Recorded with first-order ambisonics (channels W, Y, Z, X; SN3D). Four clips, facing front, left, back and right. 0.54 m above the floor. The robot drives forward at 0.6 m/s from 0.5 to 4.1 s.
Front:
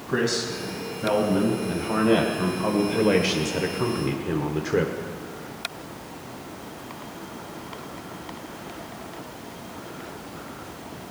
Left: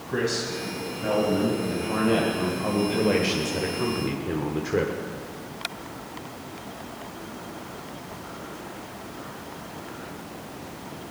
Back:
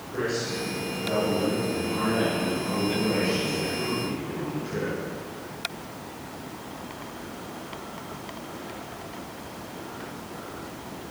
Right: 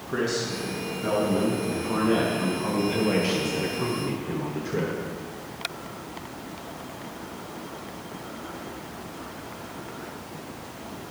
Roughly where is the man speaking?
Ahead.